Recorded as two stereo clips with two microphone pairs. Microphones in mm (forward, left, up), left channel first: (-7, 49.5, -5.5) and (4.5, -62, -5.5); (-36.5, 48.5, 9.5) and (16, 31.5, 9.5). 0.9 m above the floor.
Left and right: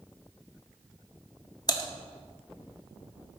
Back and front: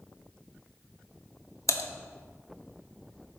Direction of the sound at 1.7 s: 150° left.